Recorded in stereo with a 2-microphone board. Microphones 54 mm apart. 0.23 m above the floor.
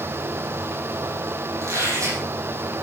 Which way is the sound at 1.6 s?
70° right (ahead or behind).